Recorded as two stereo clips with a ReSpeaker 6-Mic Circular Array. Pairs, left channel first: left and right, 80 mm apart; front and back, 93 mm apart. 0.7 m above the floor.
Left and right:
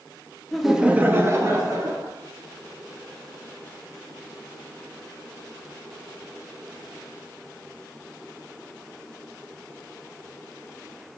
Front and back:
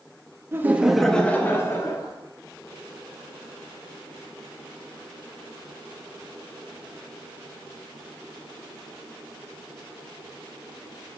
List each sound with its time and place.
0.5 s laughter: 170° left, 0.7 m; by 2.1 s 50° right, 1.4 m